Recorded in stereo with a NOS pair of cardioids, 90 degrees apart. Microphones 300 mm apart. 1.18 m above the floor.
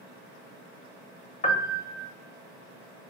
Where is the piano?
25° left, 0.7 m.